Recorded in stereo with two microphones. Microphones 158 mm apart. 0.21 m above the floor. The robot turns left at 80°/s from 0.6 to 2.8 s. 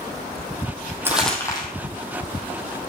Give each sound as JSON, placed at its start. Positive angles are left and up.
{"t": 1.1, "sound": "crumpling", "side_deg": -15, "distance_m": 2.0}